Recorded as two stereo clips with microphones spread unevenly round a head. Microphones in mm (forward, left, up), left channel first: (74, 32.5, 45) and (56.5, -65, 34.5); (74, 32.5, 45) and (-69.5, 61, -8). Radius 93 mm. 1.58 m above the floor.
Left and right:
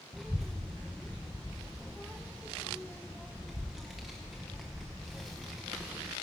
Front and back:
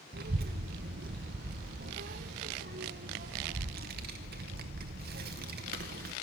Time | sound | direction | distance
0.1 | a child speaking | 160° left | 0.7 m